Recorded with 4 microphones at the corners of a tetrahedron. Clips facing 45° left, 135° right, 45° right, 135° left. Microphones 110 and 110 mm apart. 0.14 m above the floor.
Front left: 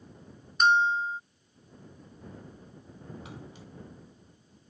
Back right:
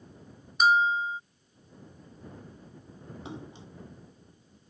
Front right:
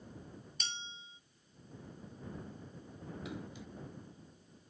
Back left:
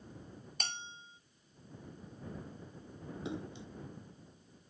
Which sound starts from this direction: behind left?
A bell, at 0.6 s.